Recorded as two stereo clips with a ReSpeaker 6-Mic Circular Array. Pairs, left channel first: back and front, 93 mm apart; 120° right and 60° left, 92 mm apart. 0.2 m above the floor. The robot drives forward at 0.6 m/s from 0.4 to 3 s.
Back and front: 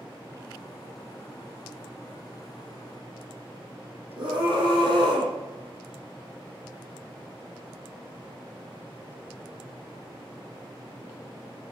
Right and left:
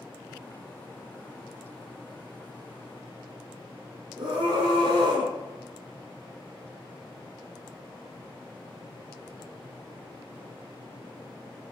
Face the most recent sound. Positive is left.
turn(degrees=40)